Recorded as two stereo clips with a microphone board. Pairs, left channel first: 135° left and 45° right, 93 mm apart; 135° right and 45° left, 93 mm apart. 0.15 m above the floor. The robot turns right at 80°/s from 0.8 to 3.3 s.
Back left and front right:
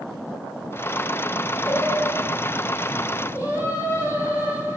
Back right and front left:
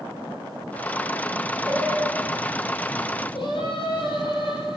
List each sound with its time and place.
1.7 s singing: 65° left, 5 m; by 4.8 s 165° right, 5 m